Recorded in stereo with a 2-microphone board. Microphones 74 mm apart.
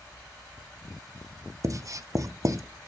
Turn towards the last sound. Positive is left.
turn(degrees=-45)  # may be behind; listen again after turning